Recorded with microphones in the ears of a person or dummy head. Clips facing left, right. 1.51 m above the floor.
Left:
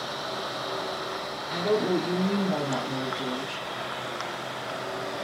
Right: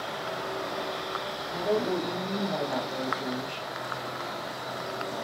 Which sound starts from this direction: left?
A woman speaking, at 1.5 s.